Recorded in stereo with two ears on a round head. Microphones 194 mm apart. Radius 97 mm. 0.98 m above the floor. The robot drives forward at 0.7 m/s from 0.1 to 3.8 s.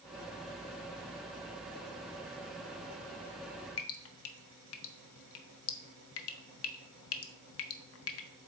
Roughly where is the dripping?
Left.